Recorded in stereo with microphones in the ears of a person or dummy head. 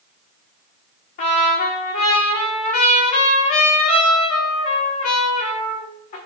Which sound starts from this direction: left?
A trumpet, at 1.2 s.